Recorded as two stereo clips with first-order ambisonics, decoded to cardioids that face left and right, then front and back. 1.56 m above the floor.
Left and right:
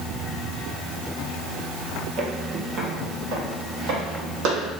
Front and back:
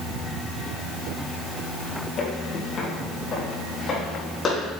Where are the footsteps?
40° right, 2.5 m; by 4.7 s 65° right, 5 m.